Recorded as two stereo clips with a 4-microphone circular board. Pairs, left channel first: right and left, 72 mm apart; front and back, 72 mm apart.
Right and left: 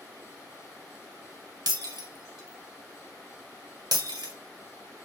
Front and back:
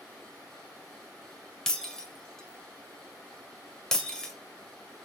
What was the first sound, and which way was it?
Breaking glass, 80° left.